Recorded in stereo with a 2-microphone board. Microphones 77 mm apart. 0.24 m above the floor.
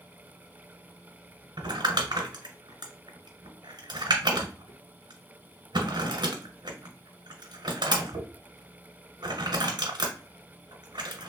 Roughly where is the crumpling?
Right.